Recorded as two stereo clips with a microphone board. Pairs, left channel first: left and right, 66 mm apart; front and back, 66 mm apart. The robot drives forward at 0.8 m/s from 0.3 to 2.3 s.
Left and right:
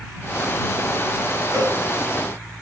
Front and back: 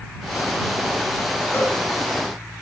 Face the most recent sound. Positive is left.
turn(degrees=-60)